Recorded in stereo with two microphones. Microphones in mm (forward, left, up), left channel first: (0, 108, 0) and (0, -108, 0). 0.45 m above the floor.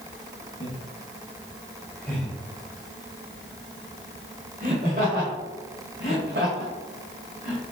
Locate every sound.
0.6 s laughter: 30° left (ahead or behind), 2 m; by 7.6 s 65° right (ahead or behind), 3 m